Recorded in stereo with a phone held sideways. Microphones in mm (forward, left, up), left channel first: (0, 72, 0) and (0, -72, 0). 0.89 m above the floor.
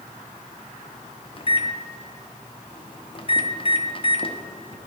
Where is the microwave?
35° left (ahead or behind), 0.7 m.